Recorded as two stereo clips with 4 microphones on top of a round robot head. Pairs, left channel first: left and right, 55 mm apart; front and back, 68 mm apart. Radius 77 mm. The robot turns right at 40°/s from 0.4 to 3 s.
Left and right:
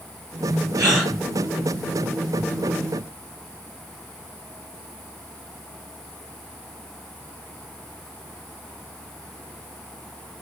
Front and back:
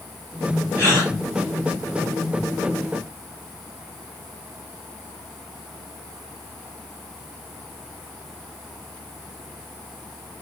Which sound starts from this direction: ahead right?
A gasp, at 0.8 s.